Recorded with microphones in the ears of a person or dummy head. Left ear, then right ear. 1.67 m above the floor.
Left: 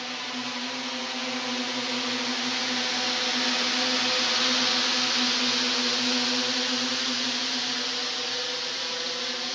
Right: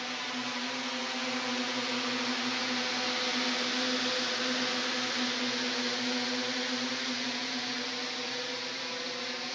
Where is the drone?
10° left (ahead or behind); by 9.6 s centre (ahead or behind).